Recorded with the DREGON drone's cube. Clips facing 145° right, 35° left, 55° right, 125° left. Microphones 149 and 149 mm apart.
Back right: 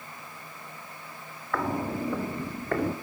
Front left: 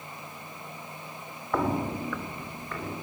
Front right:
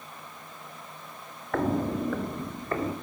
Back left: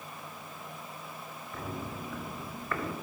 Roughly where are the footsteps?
Ahead right.